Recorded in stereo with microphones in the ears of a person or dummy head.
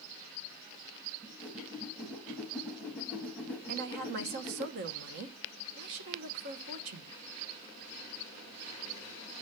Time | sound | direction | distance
1.2 | a whoosh | 10° right (ahead or behind) | 1.8 m
3.7 | a woman speaking | 60° right (ahead or behind) | 1.3 m